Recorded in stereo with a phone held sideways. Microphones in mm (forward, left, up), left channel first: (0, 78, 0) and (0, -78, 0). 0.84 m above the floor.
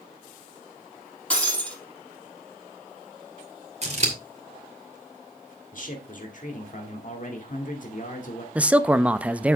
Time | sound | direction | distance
1.3 | breaking glass | 10° left (ahead or behind) | 4 m
3.8 | scissors | 45° right (ahead or behind) | 2.5 m
5.7 | a man speaking | 55° left (ahead or behind) | 2.5 m
8.6 | a man speaking | 10° right (ahead or behind) | 0.6 m